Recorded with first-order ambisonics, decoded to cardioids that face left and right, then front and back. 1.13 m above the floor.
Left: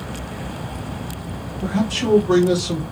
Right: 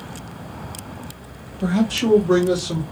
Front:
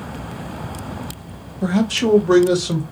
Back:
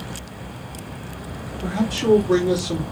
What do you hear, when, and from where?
1.6 s a man speaking: 20° right, 0.8 m; by 2.8 s 20° left, 1.2 m